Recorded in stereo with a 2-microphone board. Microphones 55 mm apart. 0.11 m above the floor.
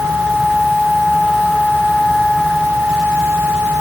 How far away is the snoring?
No snoring in this recording.